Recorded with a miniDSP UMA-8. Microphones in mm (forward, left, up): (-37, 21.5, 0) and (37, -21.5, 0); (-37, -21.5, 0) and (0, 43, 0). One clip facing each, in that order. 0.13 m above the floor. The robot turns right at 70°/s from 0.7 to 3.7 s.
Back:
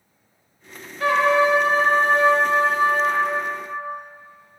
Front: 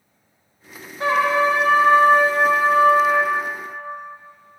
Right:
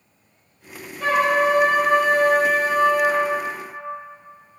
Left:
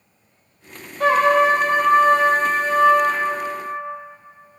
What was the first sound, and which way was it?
A trumpet, 30° left.